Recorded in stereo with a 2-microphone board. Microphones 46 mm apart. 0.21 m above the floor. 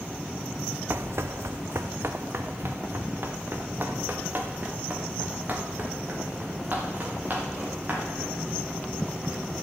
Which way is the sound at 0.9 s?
50° right (ahead or behind).